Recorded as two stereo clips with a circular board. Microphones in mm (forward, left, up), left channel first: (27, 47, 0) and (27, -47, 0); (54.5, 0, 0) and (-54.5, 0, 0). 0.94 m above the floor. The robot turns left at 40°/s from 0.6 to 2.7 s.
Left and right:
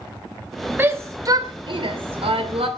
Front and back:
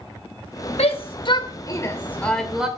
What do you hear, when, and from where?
0.8 s a shout: 20° right, 3 m; by 2.7 s 100° right, 3 m